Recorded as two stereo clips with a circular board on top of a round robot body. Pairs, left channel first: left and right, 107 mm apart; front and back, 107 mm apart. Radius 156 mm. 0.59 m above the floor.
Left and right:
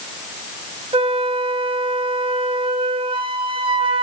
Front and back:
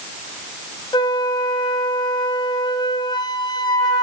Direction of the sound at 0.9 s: 50° right.